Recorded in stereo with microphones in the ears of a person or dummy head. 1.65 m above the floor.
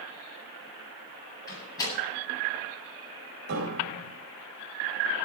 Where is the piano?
55° right (ahead or behind), 4.5 m.